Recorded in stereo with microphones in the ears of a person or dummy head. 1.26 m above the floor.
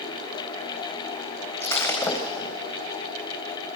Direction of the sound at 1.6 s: 15° left (ahead or behind).